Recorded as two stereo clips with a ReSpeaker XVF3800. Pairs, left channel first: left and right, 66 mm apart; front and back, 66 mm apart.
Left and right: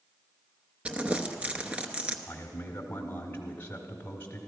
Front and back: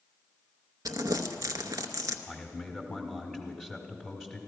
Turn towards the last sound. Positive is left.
turn(degrees=70)